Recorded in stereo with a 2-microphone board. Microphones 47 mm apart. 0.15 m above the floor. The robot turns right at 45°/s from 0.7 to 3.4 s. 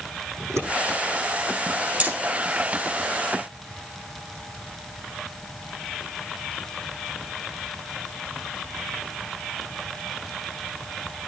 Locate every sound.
0.4 s scissors: 80° right, 8.5 m
2.0 s hammering: 35° right (ahead or behind), 3.5 m; by 2.1 s 45° right (ahead or behind), 3.5 m